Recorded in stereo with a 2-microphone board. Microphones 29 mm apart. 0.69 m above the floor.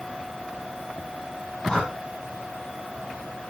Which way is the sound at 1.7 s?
25° left (ahead or behind).